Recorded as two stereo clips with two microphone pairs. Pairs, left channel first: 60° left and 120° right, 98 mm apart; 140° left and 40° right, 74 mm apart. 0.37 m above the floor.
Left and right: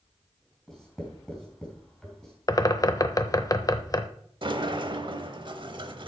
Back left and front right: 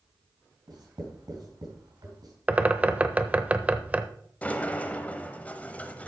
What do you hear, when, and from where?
0.7 s writing: 25° right, 3.5 m
2.5 s a bird: 25° left, 0.7 m
4.4 s a sliding door: 150° right, 0.9 m